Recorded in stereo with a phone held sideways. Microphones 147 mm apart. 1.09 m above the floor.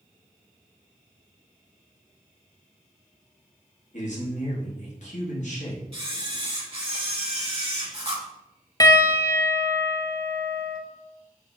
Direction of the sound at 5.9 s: 40° right (ahead or behind).